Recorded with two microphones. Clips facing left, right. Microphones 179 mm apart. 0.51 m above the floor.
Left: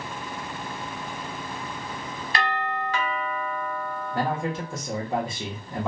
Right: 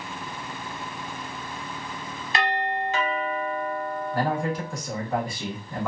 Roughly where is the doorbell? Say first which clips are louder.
Right 2 dB; right.